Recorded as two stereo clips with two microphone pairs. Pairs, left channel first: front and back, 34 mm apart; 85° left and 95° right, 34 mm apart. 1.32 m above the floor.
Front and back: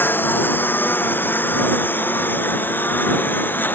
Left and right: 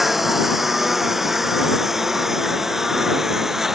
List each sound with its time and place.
0.0 s a lawn mower: 10° right; by 3.8 s 15° right